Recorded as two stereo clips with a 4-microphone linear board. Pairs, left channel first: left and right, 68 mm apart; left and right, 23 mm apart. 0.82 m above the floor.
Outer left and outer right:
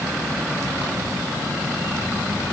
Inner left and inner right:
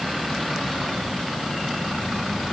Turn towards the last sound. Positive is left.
No sound to turn to.